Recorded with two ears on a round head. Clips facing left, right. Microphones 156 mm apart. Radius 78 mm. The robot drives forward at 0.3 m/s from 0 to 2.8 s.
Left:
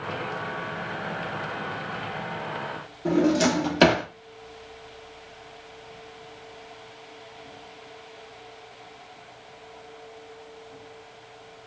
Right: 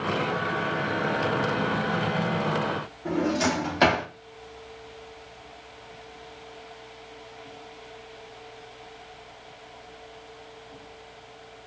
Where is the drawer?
40° left (ahead or behind), 0.6 m.